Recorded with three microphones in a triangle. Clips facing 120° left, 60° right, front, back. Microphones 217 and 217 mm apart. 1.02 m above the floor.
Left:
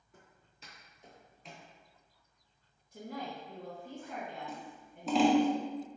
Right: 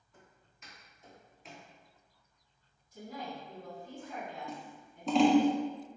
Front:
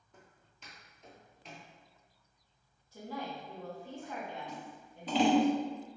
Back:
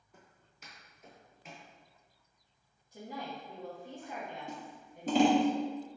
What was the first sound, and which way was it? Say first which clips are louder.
Footsteps: even, front 1 dB; 100° left.